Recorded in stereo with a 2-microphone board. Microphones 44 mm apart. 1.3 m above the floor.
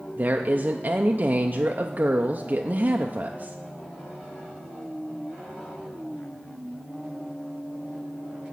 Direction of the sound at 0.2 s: 45° right (ahead or behind).